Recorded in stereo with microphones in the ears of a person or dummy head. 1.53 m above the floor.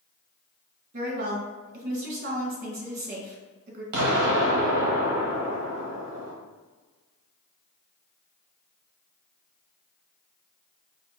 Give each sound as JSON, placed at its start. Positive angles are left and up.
{"t": 0.9, "sound": "a woman speaking", "side_deg": -50, "distance_m": 1.7}
{"t": 3.9, "sound": "an explosion", "side_deg": -60, "distance_m": 1.1}